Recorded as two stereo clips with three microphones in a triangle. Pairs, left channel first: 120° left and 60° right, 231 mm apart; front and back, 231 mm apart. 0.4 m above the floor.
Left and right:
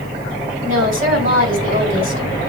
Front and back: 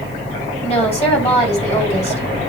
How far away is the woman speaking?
About 2.5 m.